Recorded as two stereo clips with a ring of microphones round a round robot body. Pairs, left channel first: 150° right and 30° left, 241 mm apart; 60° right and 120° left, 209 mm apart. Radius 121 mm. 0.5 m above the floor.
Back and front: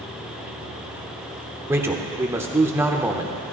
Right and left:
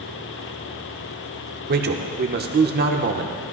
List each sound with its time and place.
1.7 s a man speaking: 105° left, 1.0 m